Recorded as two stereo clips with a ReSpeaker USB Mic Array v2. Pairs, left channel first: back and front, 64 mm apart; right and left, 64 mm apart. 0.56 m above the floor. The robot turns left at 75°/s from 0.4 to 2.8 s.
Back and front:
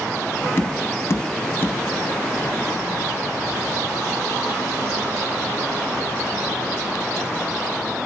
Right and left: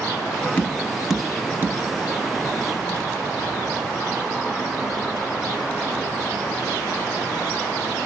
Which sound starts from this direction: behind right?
Tapping, at 0.6 s.